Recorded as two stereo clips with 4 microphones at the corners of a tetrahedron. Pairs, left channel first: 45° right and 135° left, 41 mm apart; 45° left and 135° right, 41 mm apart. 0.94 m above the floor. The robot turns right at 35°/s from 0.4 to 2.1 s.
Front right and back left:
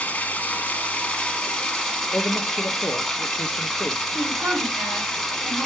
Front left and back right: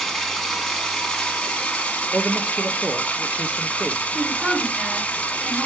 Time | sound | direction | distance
0.0 | running water | 25° right | 0.9 m
2.1 | a man speaking | 75° right | 0.6 m
4.1 | a woman speaking | 165° left | 3 m